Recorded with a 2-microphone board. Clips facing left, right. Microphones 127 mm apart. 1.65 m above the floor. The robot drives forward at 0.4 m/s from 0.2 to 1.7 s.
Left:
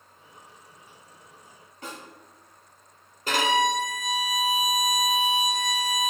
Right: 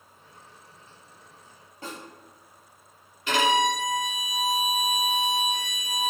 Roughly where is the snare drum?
Right.